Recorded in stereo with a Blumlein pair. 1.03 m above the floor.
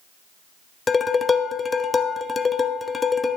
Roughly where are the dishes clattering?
Ahead.